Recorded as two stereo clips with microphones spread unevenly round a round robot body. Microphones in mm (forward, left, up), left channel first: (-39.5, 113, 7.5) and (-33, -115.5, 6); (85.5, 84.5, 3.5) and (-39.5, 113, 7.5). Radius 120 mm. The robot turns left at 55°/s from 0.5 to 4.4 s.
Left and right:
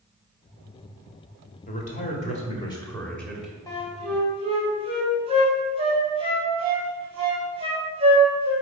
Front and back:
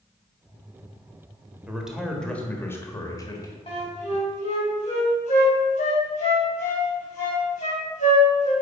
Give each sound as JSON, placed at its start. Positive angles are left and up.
{"t": 1.7, "sound": "a man speaking", "azimuth_deg": 95, "distance_m": 1.4}
{"t": 3.7, "sound": "a flute", "azimuth_deg": 15, "distance_m": 2.5}